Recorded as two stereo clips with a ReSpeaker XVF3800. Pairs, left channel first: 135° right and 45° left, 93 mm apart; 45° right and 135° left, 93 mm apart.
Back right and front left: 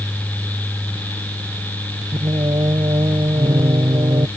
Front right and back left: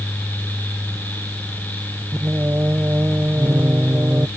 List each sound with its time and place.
2.1 s singing: 75° left